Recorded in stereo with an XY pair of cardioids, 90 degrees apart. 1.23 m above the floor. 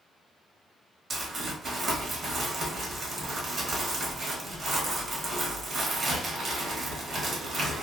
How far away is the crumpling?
About 1.1 m.